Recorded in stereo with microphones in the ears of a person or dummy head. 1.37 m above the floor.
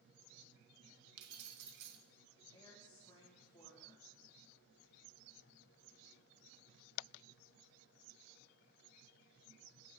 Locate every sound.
1.2 s keys jangling: 65° right (ahead or behind), 1.2 m
2.5 s a woman speaking: 20° left (ahead or behind), 1.8 m